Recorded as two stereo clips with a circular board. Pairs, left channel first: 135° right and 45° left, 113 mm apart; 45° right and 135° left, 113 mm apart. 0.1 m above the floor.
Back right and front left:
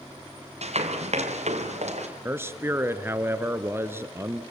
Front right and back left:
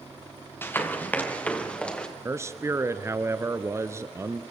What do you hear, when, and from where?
0.6 s running footsteps: 25° left, 3 m; by 2.1 s 35° left, 5 m
2.2 s a man speaking: 95° left, 1.4 m